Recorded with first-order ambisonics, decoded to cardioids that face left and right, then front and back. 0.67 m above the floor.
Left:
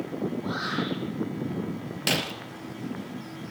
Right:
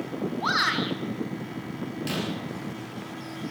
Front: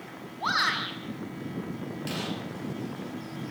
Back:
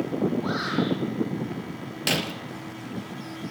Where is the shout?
55° right, 5.5 m.